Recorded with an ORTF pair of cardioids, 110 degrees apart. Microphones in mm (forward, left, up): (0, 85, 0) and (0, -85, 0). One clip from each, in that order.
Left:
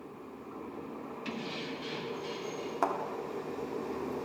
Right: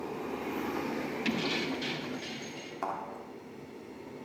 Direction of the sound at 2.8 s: 35° left.